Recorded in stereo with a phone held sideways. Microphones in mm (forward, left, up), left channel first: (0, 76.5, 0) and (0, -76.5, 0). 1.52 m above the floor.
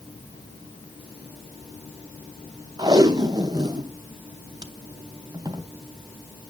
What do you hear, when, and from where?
2.8 s tape being pulled: 25° right (ahead or behind), 0.7 m